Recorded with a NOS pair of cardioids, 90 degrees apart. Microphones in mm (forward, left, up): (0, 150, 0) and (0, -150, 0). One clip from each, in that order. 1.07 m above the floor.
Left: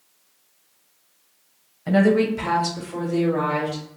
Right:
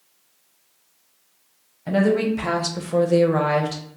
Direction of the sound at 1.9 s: 10° left.